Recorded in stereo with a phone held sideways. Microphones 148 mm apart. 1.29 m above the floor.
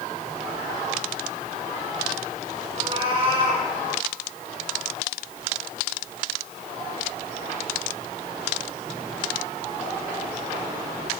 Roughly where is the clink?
I don't hear a clink.